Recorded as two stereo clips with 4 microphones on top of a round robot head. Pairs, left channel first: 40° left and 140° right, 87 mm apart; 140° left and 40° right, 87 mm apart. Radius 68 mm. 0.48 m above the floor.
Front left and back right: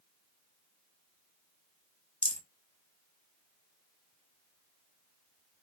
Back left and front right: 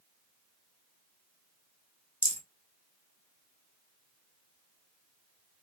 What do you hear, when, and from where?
2.2 s a rattle: 105° left, 1.4 m